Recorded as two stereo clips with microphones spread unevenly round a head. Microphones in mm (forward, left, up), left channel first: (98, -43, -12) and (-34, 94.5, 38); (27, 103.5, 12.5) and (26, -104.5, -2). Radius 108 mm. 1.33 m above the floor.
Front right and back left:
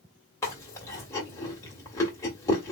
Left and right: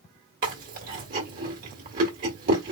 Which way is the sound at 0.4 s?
135° right.